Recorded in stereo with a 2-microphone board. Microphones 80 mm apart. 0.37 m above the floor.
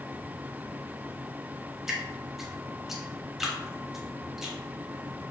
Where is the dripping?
5° right (ahead or behind), 1.0 m.